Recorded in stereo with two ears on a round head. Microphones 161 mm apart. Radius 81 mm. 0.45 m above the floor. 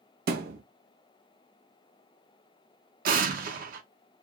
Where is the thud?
55° right (ahead or behind), 0.6 m.